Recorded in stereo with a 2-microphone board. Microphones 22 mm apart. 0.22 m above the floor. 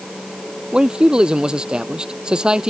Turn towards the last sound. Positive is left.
turn(degrees=-45)  # may be behind; listen again after turning